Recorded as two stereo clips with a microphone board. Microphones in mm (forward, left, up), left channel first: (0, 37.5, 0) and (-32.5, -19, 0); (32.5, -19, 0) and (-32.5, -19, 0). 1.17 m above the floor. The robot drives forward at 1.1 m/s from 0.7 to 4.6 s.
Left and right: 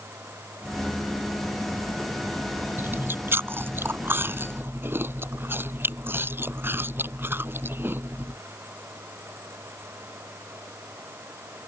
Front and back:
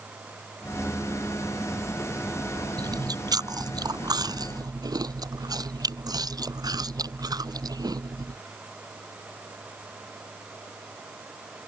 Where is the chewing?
175° right.